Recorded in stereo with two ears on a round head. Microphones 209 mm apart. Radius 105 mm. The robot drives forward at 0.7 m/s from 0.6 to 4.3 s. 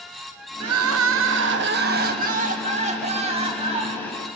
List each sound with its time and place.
0.6 s crying: 70° right (ahead or behind), 1.1 m; by 4.1 s 20° right (ahead or behind), 3 m